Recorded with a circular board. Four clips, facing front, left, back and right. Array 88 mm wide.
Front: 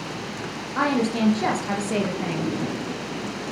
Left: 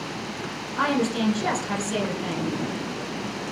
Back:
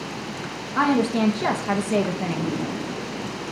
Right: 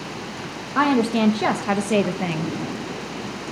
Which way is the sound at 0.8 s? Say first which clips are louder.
Right 5 dB, back 2 dB; 90° right.